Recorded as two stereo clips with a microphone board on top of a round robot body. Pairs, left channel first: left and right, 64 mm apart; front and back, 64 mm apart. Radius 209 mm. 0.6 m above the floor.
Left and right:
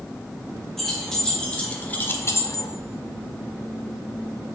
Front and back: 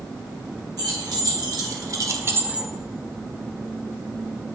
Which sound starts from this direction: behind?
Keys jangling, at 0.8 s.